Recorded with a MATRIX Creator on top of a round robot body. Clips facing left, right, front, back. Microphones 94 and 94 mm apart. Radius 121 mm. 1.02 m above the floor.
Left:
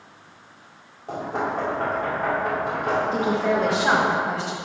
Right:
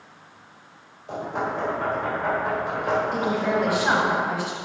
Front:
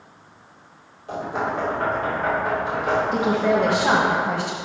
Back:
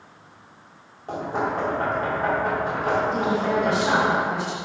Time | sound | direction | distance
1.1 | knocking | 130° left | 2.5 m
3.1 | a woman speaking | 20° left | 1.2 m